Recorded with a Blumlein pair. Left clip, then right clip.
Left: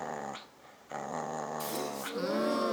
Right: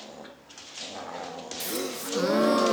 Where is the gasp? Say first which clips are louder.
Right 3 dB; 65° right, 0.5 m.